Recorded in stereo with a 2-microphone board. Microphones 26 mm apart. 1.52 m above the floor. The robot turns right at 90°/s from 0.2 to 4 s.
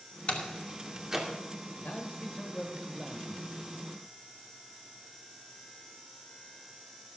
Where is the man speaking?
90° left, 1.3 m; by 3.8 s 85° right, 1.3 m.